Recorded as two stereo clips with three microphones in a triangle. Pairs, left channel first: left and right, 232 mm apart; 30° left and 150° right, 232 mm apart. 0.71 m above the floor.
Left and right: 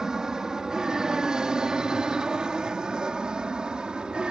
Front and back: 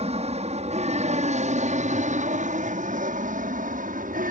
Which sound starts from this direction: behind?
An aircraft, at 0.0 s.